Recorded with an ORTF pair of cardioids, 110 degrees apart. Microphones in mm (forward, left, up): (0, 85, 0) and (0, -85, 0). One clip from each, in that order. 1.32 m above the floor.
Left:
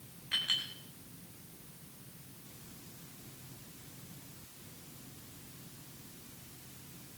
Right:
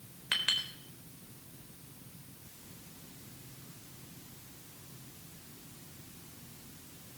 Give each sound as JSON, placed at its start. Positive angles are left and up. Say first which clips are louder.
{"t": 0.3, "sound": "a clink", "louder": "right 2 dB", "azimuth_deg": -70, "distance_m": 4.0}